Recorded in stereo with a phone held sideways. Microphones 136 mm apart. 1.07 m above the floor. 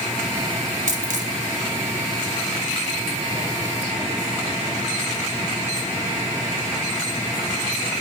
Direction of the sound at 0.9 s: 70° right (ahead or behind).